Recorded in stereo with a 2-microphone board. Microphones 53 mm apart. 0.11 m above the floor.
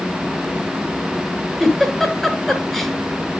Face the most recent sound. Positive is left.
turn(degrees=5)  # may be behind; listen again after turning